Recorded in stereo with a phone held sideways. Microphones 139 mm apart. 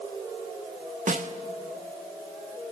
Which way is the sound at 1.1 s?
65° right (ahead or behind).